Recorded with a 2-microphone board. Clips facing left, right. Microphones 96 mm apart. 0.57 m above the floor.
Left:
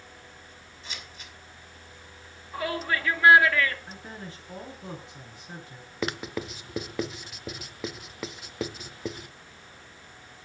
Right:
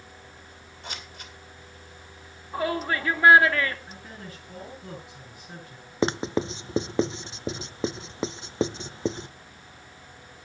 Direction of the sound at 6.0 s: 25° right (ahead or behind).